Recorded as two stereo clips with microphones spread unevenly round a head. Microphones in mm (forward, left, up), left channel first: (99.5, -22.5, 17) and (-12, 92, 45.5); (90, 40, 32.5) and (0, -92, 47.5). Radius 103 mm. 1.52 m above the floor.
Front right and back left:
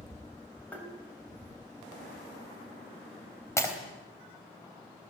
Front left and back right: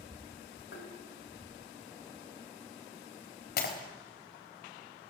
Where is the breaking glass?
30° left, 3.5 m.